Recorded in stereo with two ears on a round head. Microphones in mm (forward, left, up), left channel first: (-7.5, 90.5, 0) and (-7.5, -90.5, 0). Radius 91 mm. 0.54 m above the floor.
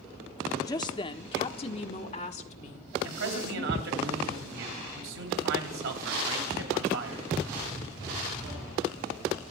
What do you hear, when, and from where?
0.6 s a woman speaking: 20° left (ahead or behind), 0.8 m; by 4.0 s 35° left (ahead or behind), 2.5 m
3.0 s a man speaking: 70° right (ahead or behind), 3 m